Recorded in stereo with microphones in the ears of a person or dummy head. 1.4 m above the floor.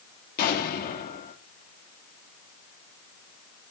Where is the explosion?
55° left (ahead or behind), 2.5 m.